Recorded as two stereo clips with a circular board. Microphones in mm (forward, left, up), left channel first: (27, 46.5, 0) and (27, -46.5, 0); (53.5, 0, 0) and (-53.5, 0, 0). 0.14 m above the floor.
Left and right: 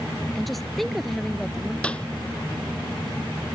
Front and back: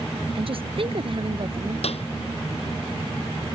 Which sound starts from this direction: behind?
A woman speaking, at 0.3 s.